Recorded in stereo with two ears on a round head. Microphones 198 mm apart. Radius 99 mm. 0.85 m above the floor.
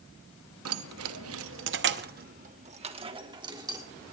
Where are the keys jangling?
70° right (ahead or behind), 0.9 m; by 3.8 s 15° right (ahead or behind), 1.7 m.